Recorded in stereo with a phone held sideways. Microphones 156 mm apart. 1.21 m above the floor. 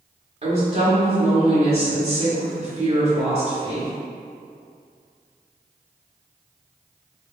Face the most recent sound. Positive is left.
turn(degrees=-40)  # may be behind; listen again after turning